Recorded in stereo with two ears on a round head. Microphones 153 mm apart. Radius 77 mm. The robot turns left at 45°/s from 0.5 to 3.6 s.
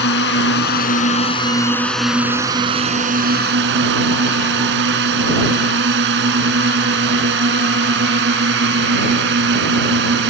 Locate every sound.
0.0 s a drone: 70° left; by 10.3 s 70° right